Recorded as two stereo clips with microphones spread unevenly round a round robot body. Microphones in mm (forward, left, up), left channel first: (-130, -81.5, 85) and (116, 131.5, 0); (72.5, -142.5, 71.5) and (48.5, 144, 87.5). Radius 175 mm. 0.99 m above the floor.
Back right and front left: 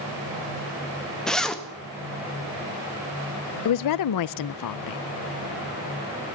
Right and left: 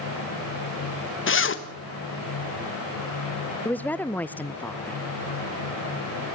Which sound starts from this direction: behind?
A woman speaking, at 3.6 s.